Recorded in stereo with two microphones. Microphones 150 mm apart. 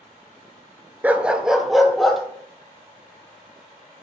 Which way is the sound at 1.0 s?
10° right (ahead or behind).